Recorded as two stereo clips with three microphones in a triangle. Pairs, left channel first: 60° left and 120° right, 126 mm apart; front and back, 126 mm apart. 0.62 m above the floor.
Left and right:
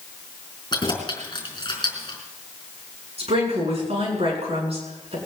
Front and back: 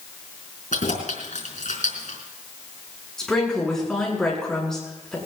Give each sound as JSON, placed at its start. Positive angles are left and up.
{"t": 0.7, "sound": "keys jangling", "azimuth_deg": 5, "distance_m": 4.5}
{"t": 3.2, "sound": "a woman speaking", "azimuth_deg": -85, "distance_m": 7.0}